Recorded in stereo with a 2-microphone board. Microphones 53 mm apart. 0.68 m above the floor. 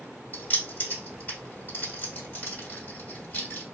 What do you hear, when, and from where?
0.3 s keys jangling: 35° left (ahead or behind), 1.4 m